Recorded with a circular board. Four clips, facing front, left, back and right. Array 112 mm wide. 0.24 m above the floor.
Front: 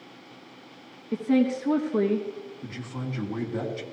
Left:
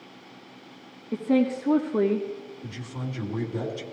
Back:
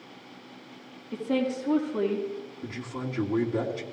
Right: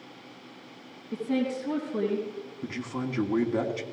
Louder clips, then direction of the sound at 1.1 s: Left 5 dB, front 5 dB; 5° left.